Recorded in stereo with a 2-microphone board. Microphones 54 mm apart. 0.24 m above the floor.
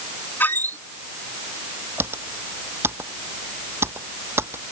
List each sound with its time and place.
0.4 s a squeak: 40° left (ahead or behind)
2.0 s typing on a keyboard: 50° right (ahead or behind)